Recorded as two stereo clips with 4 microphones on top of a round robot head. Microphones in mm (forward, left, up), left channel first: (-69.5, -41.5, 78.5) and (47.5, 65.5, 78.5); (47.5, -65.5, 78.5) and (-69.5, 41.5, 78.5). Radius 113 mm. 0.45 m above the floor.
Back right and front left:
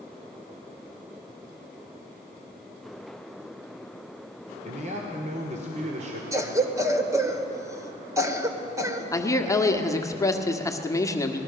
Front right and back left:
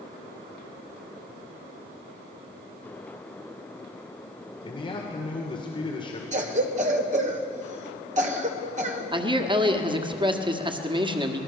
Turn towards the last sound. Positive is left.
turn(degrees=170)